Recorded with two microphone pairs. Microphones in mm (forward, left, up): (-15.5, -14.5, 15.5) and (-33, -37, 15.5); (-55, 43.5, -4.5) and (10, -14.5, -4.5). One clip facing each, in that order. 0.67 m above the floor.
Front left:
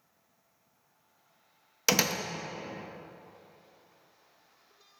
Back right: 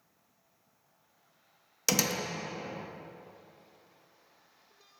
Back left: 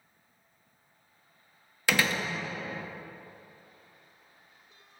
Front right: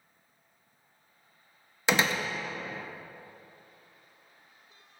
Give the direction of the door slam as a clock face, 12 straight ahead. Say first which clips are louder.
Front left 2 dB, front right 1 dB; 12 o'clock.